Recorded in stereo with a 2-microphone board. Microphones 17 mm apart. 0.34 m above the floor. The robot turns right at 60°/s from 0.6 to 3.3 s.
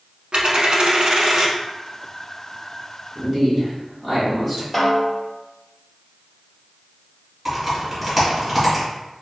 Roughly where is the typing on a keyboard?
Centre.